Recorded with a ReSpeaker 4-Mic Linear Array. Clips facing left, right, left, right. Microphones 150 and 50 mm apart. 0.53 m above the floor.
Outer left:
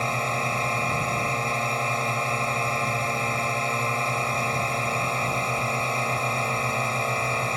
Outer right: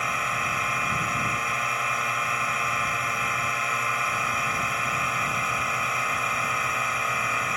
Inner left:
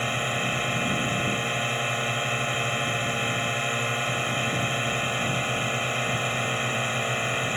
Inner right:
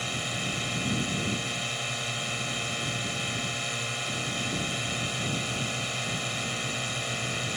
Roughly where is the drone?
Left.